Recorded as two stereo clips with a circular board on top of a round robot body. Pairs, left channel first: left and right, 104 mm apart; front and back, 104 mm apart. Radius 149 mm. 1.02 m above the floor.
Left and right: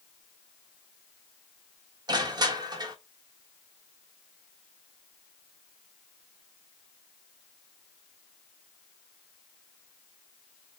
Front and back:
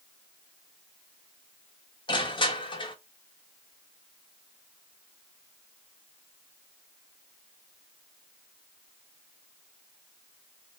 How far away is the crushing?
About 1.7 m.